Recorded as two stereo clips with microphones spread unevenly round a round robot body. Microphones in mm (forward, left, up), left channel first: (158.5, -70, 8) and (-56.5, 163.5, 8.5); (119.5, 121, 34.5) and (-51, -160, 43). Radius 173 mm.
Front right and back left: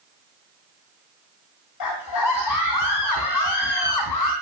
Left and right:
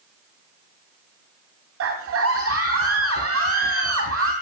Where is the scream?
75° right, 3 m.